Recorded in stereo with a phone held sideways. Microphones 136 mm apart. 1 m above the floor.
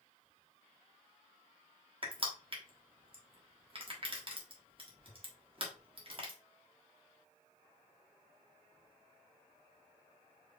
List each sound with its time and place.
2.0 s crushing: 40° right (ahead or behind), 1.3 m